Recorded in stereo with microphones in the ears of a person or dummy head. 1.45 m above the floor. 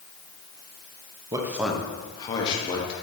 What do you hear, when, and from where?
1.3 s a man speaking: 20° right (ahead or behind), 0.6 m; by 2.9 s 40° left (ahead or behind), 1.3 m